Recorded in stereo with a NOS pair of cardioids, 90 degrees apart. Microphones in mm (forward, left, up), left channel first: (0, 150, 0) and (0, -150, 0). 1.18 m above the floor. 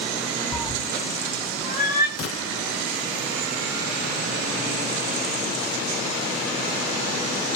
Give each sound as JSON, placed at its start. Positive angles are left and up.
{"t": 0.5, "sound": "a cat meowing", "azimuth_deg": 10, "distance_m": 2.5}
{"t": 2.2, "sound": "a gunshot", "azimuth_deg": 50, "distance_m": 1.0}